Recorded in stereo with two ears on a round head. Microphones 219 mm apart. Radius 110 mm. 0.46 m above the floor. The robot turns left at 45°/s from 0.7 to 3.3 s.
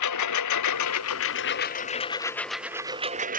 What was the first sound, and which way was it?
A lawn mower, 80° left.